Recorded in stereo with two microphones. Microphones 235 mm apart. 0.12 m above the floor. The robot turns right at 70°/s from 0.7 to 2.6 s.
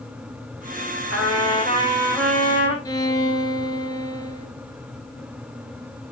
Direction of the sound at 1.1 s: 80° right.